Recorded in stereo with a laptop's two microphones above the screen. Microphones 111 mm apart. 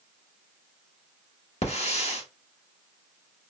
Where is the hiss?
70° left (ahead or behind), 1.2 m.